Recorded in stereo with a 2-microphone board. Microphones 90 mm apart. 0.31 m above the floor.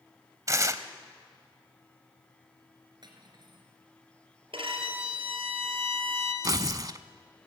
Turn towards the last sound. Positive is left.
turn(degrees=-40)  # may be behind; listen again after turning